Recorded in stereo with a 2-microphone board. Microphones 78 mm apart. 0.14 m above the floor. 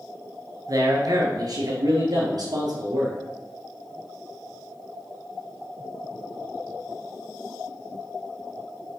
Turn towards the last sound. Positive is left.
turn(degrees=-65)  # may be behind; listen again after turning